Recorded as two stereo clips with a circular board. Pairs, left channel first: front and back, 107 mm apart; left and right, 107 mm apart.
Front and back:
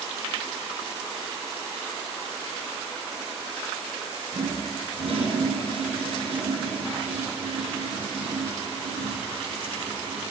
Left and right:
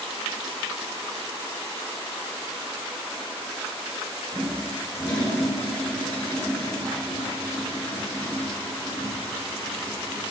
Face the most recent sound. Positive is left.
turn(degrees=165)